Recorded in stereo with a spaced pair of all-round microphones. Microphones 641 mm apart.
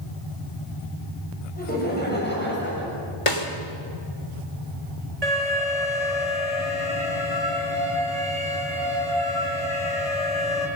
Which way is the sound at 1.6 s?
15° left (ahead or behind).